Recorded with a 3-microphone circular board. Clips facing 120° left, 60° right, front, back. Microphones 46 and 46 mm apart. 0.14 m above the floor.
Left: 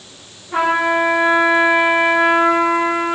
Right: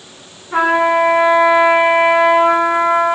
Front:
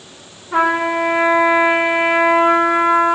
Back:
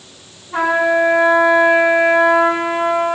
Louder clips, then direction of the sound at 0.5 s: Right 3 dB, back 1 dB; 15° left.